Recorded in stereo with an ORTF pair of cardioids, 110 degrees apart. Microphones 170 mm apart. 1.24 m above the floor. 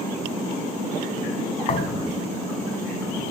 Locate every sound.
1.7 s a thud: 45° left, 2 m